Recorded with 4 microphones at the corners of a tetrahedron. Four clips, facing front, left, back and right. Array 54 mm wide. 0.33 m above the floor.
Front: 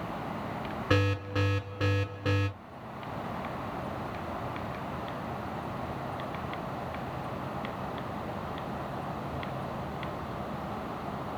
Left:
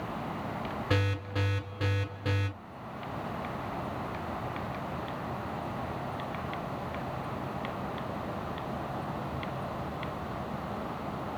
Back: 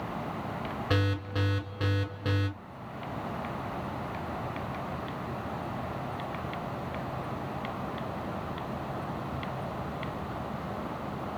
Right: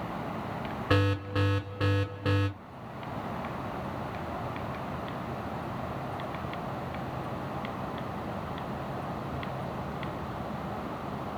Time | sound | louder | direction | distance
0.9 | an alarm | right 5 dB, front 3 dB | 70° right | 1.4 m